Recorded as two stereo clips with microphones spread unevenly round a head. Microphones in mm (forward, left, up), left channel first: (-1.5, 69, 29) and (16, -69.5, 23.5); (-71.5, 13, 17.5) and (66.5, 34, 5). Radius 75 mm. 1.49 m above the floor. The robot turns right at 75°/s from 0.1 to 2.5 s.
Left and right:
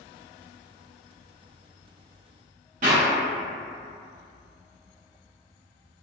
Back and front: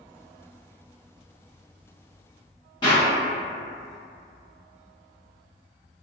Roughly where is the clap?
Behind right.